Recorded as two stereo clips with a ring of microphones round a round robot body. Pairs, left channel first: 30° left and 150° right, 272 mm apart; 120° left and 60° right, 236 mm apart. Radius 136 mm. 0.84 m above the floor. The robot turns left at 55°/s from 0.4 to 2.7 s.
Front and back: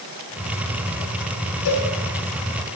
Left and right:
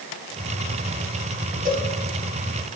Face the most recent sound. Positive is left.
turn(degrees=-65)